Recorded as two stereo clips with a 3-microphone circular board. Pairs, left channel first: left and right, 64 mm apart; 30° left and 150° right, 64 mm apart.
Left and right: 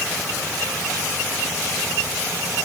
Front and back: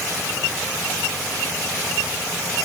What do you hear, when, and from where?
Only background noise.